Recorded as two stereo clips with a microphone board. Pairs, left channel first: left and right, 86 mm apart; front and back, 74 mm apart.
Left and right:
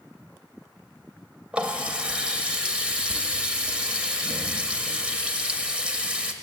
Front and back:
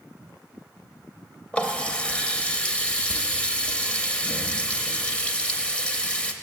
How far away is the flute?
I don't hear a flute.